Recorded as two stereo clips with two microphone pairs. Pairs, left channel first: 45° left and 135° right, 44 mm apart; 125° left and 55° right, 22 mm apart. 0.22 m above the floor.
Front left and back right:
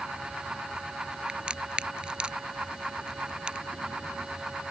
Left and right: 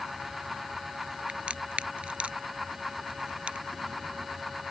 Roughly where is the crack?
Ahead right.